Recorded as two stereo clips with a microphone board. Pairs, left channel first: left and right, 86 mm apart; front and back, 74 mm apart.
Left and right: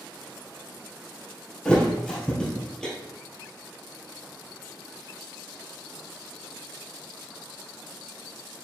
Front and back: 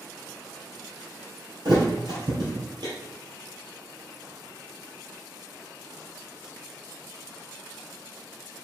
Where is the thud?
170° left, 1.6 m.